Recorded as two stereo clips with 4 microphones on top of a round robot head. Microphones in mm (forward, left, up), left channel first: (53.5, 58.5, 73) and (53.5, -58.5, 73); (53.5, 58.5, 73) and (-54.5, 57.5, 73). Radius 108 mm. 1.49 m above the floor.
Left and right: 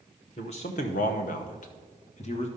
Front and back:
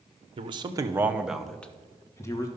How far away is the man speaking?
About 0.9 m.